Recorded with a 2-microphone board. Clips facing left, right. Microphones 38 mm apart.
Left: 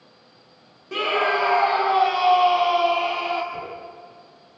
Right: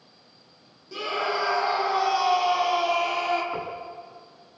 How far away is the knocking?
About 4.5 m.